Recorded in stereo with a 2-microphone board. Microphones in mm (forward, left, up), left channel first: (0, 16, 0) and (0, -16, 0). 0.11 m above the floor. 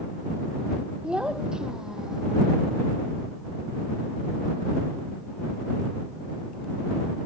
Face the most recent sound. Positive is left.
turn(degrees=-20)  # may be behind; listen again after turning